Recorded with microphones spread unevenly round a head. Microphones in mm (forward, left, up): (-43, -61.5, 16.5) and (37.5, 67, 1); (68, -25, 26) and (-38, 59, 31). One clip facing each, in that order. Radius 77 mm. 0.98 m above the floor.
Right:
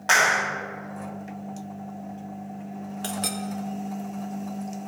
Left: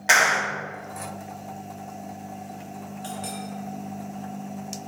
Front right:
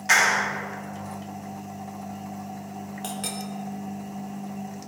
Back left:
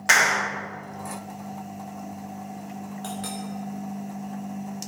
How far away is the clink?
About 0.9 m.